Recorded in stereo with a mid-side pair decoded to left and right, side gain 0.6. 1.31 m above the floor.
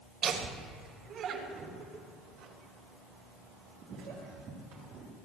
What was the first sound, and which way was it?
Laughter, 50° right.